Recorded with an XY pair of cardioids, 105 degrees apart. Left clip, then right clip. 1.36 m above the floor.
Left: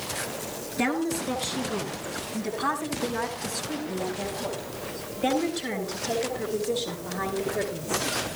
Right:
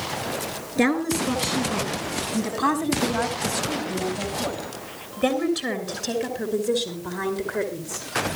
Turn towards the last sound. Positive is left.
turn(degrees=-75)